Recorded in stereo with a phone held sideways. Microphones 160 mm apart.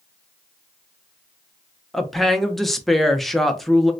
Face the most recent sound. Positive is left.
turn(degrees=0)  # may be behind; listen again after turning